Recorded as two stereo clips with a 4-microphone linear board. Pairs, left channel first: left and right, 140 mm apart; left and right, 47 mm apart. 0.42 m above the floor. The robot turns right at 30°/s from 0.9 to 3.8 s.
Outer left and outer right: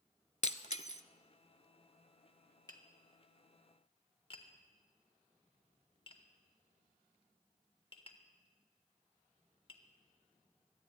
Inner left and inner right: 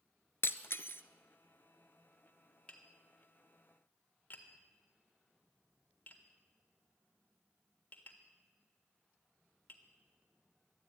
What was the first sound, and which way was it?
Breaking glass, 55° left (ahead or behind).